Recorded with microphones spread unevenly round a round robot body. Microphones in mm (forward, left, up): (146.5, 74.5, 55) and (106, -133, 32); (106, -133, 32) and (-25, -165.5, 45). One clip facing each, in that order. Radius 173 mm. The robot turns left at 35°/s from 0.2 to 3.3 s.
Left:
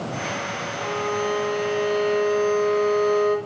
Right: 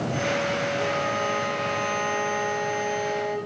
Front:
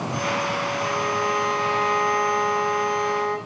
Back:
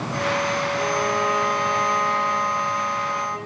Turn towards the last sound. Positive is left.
turn(degrees=60)